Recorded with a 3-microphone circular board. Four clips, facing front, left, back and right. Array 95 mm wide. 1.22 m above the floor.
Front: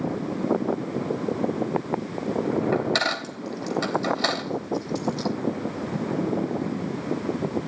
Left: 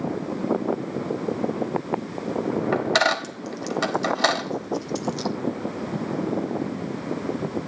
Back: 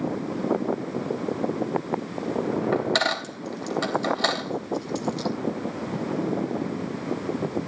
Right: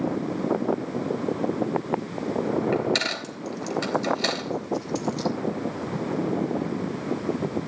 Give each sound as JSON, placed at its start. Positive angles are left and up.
{"t": 2.7, "sound": "a dropped coin", "azimuth_deg": 100, "distance_m": 1.5}